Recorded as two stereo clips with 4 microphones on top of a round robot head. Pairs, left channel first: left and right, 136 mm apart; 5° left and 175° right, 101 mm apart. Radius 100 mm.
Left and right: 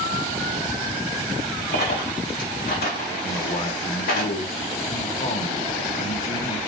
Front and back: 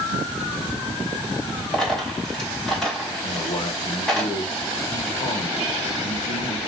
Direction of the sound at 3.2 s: 45° left.